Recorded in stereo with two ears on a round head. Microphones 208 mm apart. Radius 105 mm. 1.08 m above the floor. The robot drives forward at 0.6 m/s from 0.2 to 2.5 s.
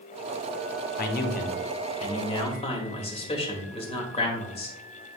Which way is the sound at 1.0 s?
40° left (ahead or behind).